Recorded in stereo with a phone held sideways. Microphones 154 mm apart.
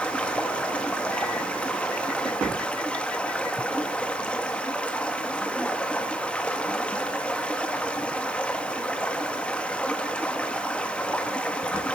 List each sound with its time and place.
0.0 s running water: 5° left (ahead or behind), 1.4 m